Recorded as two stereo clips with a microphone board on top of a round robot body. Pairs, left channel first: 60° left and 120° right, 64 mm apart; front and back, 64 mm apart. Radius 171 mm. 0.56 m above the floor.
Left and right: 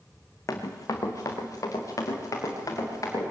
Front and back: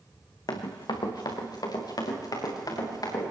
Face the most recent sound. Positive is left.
turn(degrees=20)